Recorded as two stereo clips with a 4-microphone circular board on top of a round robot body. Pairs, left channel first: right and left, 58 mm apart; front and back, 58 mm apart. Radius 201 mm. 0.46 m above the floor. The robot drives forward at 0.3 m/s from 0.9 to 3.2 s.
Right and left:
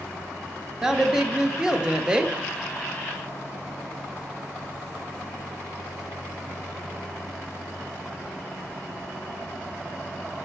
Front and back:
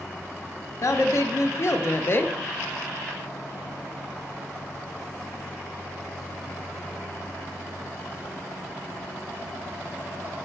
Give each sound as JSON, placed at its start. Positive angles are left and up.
{"t": 0.8, "sound": "a woman speaking", "azimuth_deg": 10, "distance_m": 1.1}